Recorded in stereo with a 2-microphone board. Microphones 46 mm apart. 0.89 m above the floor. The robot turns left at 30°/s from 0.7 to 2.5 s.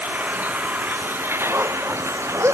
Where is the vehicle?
40° right; by 2.5 s 95° right.